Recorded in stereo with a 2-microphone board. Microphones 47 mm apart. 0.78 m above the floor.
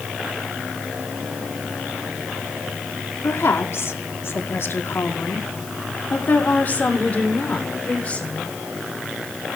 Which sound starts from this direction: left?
A woman speaking, at 3.2 s.